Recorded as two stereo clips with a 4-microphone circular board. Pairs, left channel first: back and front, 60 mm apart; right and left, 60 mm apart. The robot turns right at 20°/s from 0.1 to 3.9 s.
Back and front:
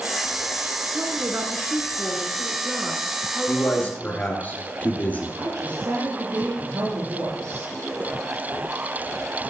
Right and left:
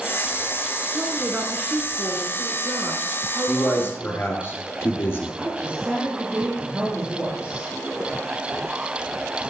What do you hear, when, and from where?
0.9 s a woman speaking: 30° left, 1.4 m; by 4.3 s 90° left, 1.4 m
3.5 s a man speaking: 135° right, 2.5 m; by 5.3 s 130° right, 2.5 m
5.4 s a woman speaking: 20° left, 4 m